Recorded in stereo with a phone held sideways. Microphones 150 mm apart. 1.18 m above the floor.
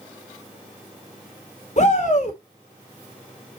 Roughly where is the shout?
Left.